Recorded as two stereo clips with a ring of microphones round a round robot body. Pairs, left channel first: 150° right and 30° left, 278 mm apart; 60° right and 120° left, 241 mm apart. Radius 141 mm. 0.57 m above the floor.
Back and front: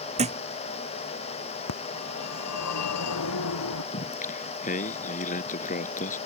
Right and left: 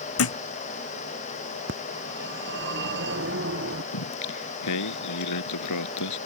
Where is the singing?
85° right.